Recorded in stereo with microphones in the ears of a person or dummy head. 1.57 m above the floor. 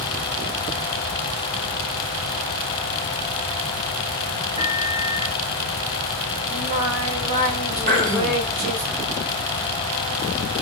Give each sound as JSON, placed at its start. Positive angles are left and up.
{"t": 4.6, "sound": "a microwave", "side_deg": -30, "distance_m": 2.5}
{"t": 6.5, "sound": "singing", "side_deg": -40, "distance_m": 3.5}
{"t": 7.9, "sound": "throat clearing", "side_deg": -45, "distance_m": 2.5}